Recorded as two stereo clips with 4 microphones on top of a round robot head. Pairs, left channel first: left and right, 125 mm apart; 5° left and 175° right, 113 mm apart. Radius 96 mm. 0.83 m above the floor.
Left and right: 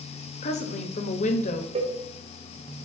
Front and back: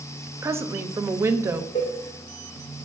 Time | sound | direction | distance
0.4 | a woman speaking | 120° left | 0.8 m
1.8 | a cowbell | 45° right | 1.1 m